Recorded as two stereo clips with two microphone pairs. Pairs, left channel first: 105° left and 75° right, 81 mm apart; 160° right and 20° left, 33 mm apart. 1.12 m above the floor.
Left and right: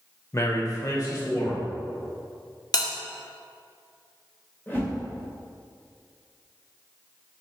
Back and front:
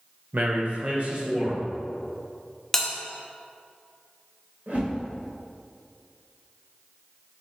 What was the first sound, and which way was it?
A man speaking, 55° left.